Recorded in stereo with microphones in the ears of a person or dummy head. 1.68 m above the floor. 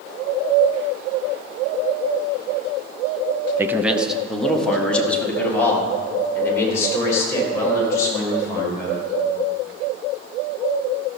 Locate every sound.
3.6 s a man speaking: 15° right (ahead or behind), 0.8 m; by 9.0 s 15° left (ahead or behind), 5 m